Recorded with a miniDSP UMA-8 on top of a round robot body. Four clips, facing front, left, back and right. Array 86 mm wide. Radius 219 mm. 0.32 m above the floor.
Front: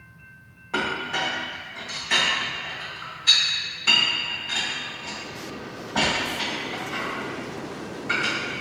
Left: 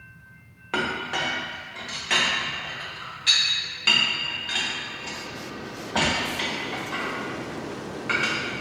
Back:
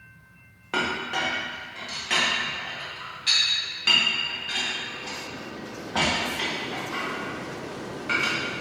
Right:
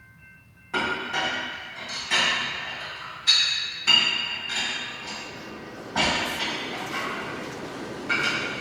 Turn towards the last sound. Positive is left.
turn(degrees=125)